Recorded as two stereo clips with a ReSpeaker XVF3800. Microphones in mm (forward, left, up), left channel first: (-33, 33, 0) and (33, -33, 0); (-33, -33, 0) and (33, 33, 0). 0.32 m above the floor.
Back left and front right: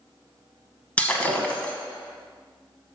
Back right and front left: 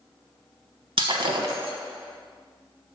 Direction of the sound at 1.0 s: 60° left.